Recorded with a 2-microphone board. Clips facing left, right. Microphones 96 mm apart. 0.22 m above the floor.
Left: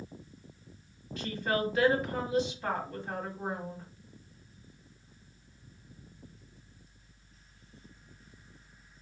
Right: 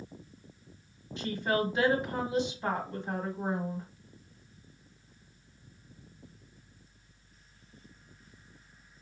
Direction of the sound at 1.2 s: 25° right (ahead or behind).